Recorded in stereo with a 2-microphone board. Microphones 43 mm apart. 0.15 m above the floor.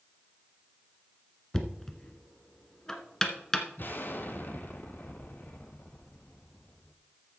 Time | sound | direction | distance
1.5 | knocking | 10° left (ahead or behind) | 1.3 m
3.8 | an explosion | 50° left (ahead or behind) | 1.3 m